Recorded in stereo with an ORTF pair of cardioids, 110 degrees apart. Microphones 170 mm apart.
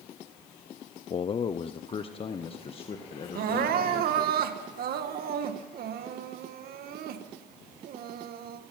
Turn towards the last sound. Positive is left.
turn(degrees=-65)